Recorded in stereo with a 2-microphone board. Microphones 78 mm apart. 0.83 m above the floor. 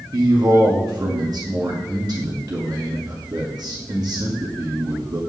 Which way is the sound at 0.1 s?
60° right (ahead or behind).